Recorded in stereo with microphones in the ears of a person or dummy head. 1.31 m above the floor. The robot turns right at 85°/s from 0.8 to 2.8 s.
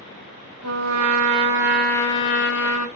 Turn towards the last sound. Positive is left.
turn(degrees=80)